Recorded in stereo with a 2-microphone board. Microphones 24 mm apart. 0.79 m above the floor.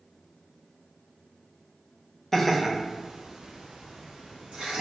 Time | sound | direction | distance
2.3 | laughter | 5° left (ahead or behind) | 0.7 m